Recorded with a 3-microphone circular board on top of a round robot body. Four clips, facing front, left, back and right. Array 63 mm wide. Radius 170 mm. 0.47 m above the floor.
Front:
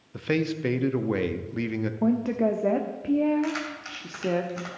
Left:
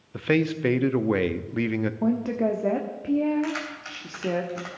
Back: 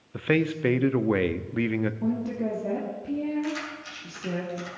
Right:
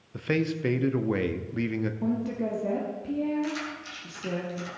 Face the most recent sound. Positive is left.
turn(degrees=55)